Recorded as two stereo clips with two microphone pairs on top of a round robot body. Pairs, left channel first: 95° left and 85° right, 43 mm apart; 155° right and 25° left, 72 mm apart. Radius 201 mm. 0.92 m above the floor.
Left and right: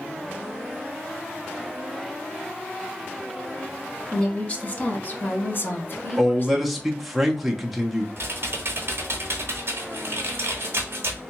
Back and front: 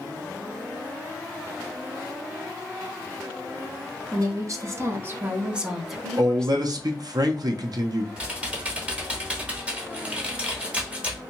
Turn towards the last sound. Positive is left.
turn(degrees=-50)